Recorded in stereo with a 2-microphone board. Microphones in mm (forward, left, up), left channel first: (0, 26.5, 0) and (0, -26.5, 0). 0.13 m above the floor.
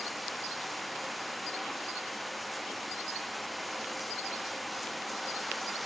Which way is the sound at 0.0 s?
Centre (ahead or behind).